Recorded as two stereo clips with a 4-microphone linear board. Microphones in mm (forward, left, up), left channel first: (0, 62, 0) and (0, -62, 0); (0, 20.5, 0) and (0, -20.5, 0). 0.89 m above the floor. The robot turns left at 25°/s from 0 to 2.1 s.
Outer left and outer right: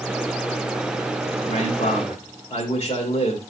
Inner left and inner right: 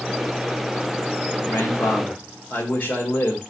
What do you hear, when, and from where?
1.4 s a man speaking: 65° left (ahead or behind), 2.5 m; by 3.4 s 45° left (ahead or behind), 2.5 m